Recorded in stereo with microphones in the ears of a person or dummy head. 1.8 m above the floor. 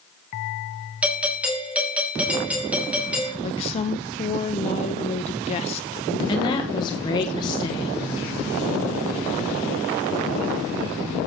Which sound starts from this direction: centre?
A doorbell, at 1.0 s.